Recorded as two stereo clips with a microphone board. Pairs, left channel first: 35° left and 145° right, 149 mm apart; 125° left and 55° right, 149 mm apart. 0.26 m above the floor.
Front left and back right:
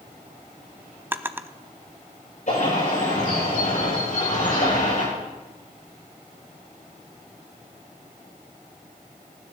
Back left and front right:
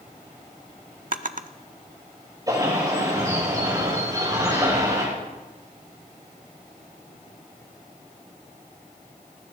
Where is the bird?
10° left, 8 m.